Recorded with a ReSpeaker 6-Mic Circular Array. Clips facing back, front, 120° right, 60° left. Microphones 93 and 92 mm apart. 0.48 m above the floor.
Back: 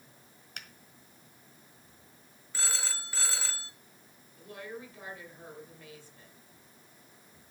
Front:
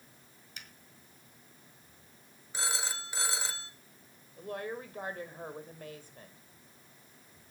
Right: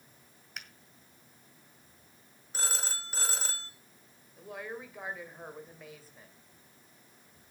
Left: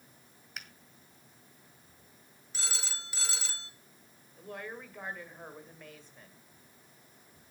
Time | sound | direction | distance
0.6 | a finger snap | 150° left | 1.7 m
2.5 | a phone ringing | 70° right | 1.2 m
4.4 | a woman speaking | 35° right | 2 m